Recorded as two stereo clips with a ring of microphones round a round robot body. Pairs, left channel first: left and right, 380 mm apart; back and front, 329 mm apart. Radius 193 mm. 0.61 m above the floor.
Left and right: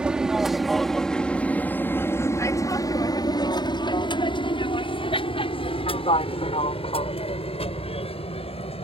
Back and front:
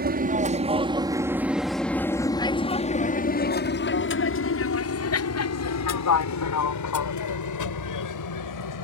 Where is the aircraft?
5° right; by 8.8 s 165° left.